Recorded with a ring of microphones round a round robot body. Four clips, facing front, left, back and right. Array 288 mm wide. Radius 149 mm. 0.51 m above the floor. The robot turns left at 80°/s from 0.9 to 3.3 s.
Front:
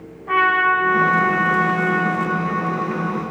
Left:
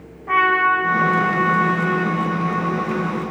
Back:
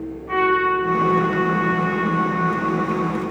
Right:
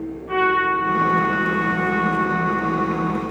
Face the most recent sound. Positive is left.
turn(degrees=-130)